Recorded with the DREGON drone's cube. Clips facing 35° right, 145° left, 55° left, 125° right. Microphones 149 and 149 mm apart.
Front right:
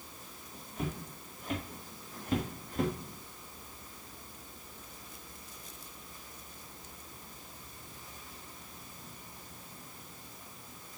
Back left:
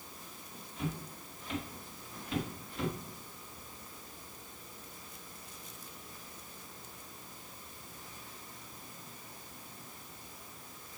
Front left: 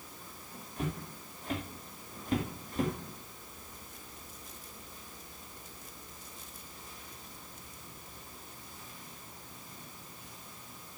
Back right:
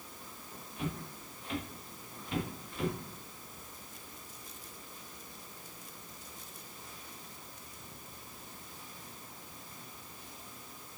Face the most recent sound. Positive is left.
turn(degrees=10)